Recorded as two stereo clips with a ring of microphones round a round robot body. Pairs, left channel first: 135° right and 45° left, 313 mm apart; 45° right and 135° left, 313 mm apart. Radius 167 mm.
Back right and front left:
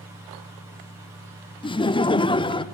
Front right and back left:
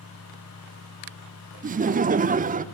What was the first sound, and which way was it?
Laughter, 165° left.